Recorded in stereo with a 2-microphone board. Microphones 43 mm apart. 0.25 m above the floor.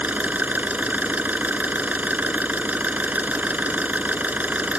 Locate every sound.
0.0 s an engine running: 40° right (ahead or behind)